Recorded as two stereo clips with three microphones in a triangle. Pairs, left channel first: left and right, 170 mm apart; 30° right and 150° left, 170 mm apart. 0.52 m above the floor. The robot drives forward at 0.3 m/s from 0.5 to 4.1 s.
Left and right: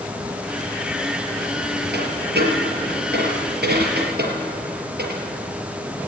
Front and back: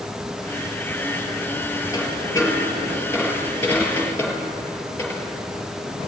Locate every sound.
1.9 s a dropped coin: 100° right, 3.5 m; by 5.2 s 110° right, 3.5 m